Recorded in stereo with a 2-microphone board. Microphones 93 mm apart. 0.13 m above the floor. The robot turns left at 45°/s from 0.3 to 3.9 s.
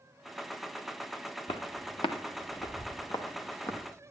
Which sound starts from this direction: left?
Footsteps, at 1.5 s.